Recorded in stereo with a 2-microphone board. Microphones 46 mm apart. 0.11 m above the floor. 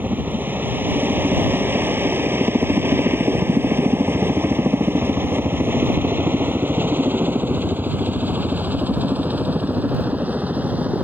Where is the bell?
No bell in this recording.